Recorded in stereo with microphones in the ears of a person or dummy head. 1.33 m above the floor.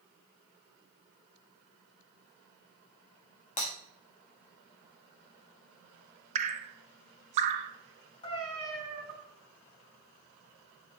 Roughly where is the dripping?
Right.